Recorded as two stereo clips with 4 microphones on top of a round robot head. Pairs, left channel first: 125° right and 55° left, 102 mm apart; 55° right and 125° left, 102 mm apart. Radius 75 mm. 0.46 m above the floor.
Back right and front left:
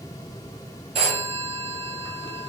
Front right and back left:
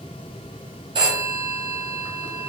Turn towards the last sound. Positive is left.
turn(degrees=80)